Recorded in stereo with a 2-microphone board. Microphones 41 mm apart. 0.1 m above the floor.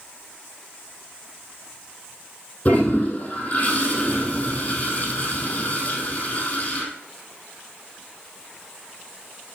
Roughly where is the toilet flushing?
Left.